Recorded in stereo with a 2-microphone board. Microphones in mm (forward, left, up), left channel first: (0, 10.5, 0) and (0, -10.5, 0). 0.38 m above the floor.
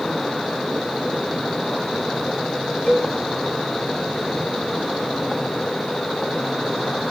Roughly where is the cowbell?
Left.